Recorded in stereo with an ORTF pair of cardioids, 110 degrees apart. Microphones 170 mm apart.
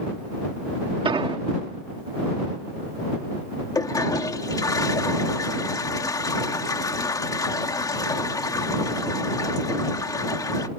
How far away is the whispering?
No whispering in this recording.